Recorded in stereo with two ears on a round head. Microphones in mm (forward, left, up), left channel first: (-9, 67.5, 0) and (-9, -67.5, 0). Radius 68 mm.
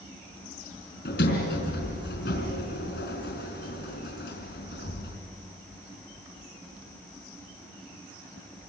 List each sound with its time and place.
1.1 s a sliding door: 75° left (ahead or behind), 4.5 m